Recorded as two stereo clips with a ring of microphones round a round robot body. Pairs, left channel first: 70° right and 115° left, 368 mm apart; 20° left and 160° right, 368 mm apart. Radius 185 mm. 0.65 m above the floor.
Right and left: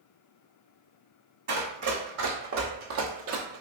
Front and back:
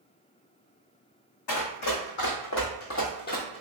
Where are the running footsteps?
55° left, 1.6 m; by 3.6 s 90° left, 0.7 m.